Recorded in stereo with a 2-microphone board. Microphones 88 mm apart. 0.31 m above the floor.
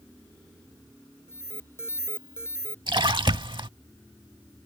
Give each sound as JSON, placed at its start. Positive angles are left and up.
{"t": 1.3, "sound": "an alarm", "side_deg": 30}
{"t": 2.9, "sound": "a splash", "side_deg": -65}